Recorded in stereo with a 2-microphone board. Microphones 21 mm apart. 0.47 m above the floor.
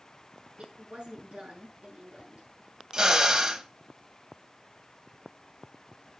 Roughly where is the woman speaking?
Right.